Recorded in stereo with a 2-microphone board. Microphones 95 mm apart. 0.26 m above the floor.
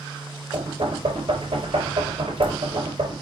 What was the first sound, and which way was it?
Knocking, 60° right (ahead or behind).